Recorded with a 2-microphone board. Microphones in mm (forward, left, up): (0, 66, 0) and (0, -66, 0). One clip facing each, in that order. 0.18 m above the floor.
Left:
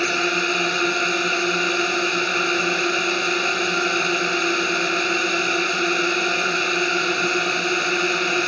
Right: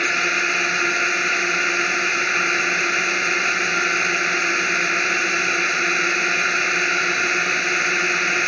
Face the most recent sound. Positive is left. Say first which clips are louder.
# left 3 dB
turn(degrees=20)  # may be behind; listen again after turning